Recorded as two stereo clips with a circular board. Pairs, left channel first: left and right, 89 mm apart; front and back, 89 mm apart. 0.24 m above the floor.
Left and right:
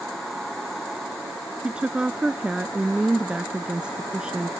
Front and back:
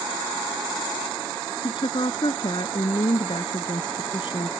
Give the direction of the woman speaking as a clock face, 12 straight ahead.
12 o'clock.